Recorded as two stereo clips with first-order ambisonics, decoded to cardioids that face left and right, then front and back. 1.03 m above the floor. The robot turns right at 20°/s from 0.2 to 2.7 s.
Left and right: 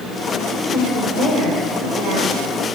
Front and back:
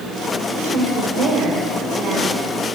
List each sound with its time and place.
0.7 s a woman speaking: 150° right, 4 m; by 2.5 s 115° right, 4 m